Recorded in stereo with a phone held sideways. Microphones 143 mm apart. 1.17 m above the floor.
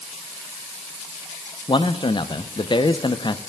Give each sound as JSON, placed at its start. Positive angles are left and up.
{"t": 1.7, "sound": "a man speaking", "side_deg": 35, "distance_m": 0.5}